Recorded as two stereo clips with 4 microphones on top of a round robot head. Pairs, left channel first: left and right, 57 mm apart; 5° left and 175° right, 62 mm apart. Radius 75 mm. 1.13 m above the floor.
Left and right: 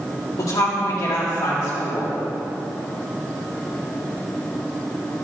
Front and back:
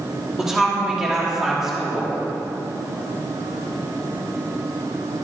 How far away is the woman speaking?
About 1.7 m.